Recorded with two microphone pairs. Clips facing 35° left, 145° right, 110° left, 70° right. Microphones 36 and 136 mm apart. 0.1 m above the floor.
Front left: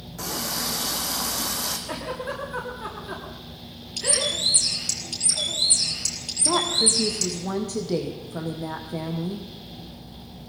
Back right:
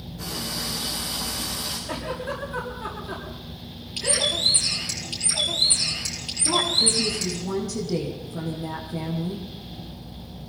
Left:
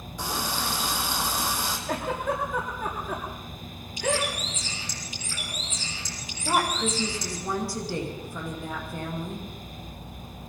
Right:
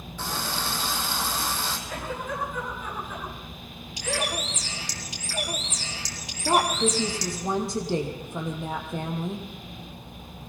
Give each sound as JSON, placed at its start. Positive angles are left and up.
{"t": 0.2, "sound": "a running tap", "azimuth_deg": 35, "distance_m": 3.5}
{"t": 1.9, "sound": "a giggle", "azimuth_deg": 115, "distance_m": 7.5}
{"t": 4.0, "sound": "a bird", "azimuth_deg": -80, "distance_m": 3.0}
{"t": 6.5, "sound": "a woman speaking", "azimuth_deg": -5, "distance_m": 4.0}